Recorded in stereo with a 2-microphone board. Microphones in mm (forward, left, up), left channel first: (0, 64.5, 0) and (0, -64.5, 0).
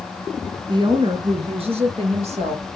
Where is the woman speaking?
40° right (ahead or behind), 1.7 m; by 2.6 s 60° right (ahead or behind), 3.5 m.